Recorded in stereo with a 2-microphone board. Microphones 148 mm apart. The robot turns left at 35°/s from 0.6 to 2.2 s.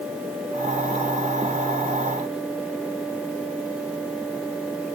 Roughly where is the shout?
No shout in this recording.